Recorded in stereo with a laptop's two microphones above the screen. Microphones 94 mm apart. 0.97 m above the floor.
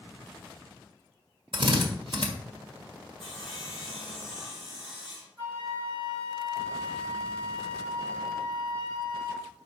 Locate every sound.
1.5 s a drill: 60° right (ahead or behind), 1.6 m
3.2 s sawing: centre (ahead or behind), 2.5 m
5.4 s a flute: 45° right (ahead or behind), 3.5 m